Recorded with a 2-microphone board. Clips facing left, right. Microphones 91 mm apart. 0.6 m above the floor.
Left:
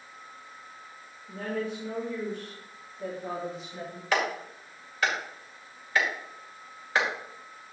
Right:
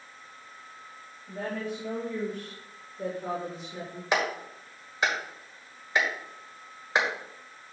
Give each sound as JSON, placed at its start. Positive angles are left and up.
{"t": 1.3, "sound": "a woman speaking", "side_deg": -55, "distance_m": 3.0}
{"t": 4.1, "sound": "a clap", "side_deg": -20, "distance_m": 1.9}